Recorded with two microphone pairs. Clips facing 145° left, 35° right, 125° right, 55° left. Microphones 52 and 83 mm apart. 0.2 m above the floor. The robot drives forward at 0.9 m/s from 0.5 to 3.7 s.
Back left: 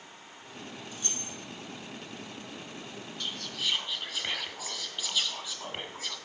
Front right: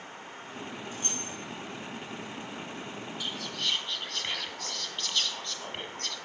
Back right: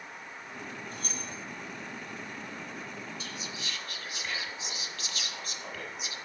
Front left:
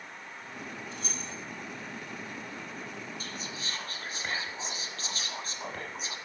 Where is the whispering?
45° left, 1.6 m; by 6.2 s 65° left, 1.4 m.